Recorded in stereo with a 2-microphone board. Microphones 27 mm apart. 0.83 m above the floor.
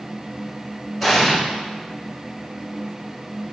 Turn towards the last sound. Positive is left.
turn(degrees=-5)  # may be behind; listen again after turning